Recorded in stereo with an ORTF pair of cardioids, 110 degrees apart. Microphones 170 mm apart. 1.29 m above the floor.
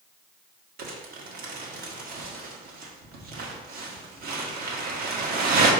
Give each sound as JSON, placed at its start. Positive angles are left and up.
{"t": 0.8, "sound": "crumpling", "azimuth_deg": -60, "distance_m": 1.4}